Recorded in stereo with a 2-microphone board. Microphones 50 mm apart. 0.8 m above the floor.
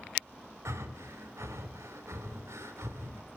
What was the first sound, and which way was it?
Breathing, 80° right.